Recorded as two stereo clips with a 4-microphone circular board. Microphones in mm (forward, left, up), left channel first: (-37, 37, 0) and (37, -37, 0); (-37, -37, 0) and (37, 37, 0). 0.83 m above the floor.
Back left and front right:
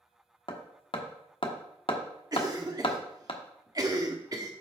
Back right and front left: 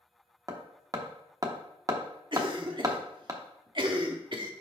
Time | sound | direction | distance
0.5 | hammering | 100° left | 1.1 m
2.3 | a cough | 5° left | 1.5 m